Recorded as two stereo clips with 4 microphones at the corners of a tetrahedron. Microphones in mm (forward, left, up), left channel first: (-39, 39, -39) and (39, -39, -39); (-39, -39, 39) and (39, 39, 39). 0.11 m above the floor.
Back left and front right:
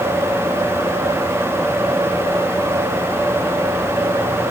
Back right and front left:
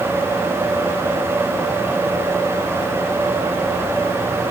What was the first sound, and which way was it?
Only background noise.